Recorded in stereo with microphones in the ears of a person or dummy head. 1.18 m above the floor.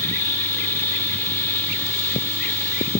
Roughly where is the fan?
Centre.